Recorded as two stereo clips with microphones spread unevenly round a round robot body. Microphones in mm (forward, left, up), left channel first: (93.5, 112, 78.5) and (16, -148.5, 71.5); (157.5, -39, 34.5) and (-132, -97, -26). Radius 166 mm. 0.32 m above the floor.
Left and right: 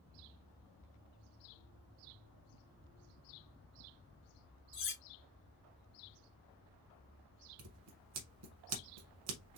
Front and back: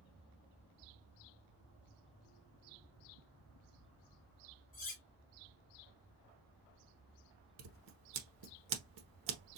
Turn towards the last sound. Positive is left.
turn(degrees=-145)